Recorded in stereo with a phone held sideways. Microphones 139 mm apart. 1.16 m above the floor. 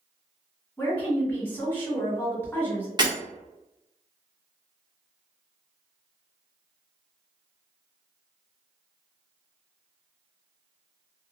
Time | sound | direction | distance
0.8 | a woman speaking | 10° left (ahead or behind) | 1.8 m
3.0 | breaking glass | 30° right (ahead or behind) | 1.0 m